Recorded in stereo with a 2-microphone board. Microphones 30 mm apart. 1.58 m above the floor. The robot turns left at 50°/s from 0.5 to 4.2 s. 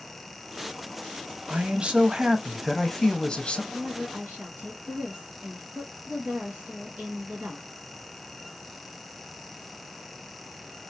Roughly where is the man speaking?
Behind right.